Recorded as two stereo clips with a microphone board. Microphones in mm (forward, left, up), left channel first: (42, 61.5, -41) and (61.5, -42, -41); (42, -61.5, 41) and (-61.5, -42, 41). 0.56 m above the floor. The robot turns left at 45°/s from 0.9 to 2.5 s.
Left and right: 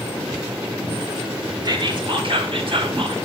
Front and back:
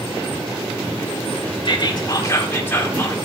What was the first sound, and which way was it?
Whispering, 40° right.